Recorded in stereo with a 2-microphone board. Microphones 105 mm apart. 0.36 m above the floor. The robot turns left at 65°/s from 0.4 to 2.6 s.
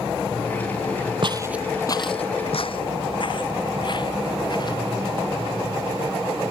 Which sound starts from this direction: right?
Footsteps, at 1.2 s.